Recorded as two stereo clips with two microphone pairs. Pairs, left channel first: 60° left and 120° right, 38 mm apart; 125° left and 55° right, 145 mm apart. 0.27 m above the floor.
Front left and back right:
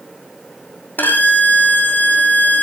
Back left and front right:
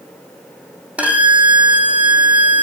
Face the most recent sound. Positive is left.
turn(degrees=25)